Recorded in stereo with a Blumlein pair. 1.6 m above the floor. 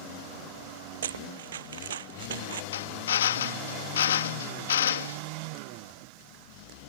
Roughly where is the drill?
Ahead left.